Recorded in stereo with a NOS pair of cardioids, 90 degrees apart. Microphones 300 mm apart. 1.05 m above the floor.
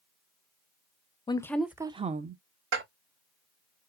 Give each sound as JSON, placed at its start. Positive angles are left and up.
{"t": 1.3, "sound": "a woman speaking", "azimuth_deg": 15, "distance_m": 0.6}
{"t": 2.7, "sound": "dishes clattering", "azimuth_deg": -45, "distance_m": 1.3}